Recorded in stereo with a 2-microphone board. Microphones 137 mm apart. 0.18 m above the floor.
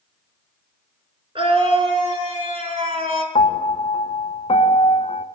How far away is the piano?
About 0.7 m.